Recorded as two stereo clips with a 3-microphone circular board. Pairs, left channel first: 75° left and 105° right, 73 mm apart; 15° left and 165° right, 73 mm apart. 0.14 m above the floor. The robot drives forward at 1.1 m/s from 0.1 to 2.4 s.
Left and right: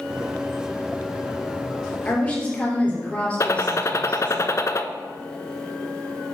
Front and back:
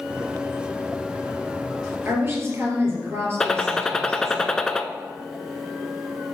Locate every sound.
2.0 s a woman speaking: 140° left, 3.5 m; by 4.4 s 145° left, 3.5 m
3.4 s a gunshot: 95° left, 0.6 m